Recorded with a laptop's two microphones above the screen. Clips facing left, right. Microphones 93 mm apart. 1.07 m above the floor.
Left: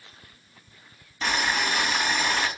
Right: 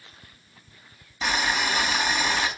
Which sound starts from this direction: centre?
Boiling, at 1.2 s.